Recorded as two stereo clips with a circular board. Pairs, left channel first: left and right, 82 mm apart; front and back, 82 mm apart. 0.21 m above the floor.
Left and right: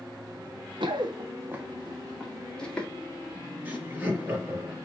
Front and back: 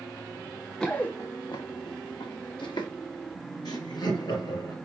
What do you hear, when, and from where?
0.8 s running footsteps: 85° right, 1.0 m; by 2.9 s 15° left, 2.5 m
3.6 s laughter: 20° right, 4 m